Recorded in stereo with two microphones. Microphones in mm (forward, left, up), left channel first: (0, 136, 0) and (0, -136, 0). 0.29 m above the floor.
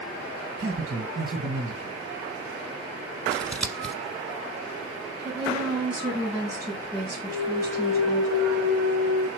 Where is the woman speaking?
10° left (ahead or behind), 3 m.